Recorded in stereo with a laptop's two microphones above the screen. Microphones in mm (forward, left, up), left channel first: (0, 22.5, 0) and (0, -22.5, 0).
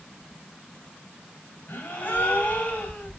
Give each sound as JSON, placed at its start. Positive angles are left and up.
{"t": 1.7, "sound": "a gasp", "side_deg": 50, "distance_m": 3.5}